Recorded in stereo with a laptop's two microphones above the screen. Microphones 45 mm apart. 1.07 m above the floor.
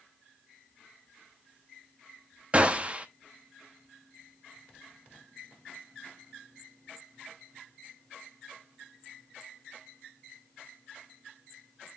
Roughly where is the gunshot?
Right.